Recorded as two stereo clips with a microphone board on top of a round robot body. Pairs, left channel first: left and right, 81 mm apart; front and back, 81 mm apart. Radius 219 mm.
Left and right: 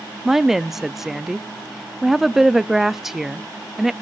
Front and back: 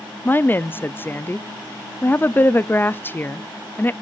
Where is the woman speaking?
10° right, 0.7 m.